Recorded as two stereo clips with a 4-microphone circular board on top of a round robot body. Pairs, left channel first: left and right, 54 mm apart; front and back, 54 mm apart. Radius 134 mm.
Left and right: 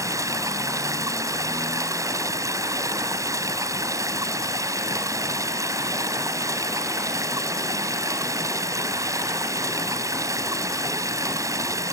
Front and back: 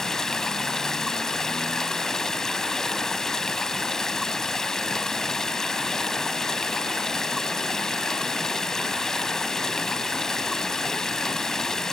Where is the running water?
80° right.